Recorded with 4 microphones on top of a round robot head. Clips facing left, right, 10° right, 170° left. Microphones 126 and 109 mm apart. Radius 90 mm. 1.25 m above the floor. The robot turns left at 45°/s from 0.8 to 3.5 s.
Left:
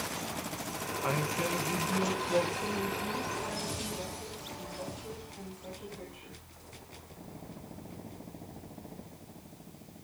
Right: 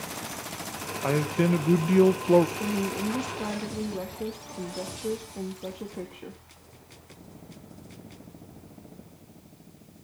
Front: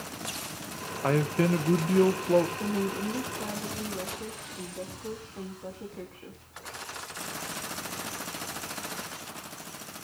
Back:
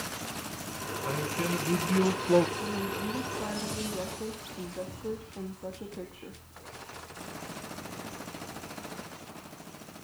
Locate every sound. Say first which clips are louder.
1.0 s a man speaking: right 9 dB, front 8 dB; 40° right, 1.3 m; by 2.5 s 105° right, 1.3 m
2.6 s a woman speaking: right 5 dB, front 3 dB; 70° right, 1.9 m; by 6.4 s 110° right, 1.9 m